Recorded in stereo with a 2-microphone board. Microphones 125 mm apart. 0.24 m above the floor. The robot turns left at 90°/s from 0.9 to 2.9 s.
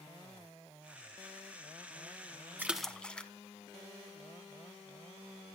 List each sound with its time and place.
2.6 s a splash: 15° right (ahead or behind), 1.0 m; by 3.3 s 10° left (ahead or behind), 1.0 m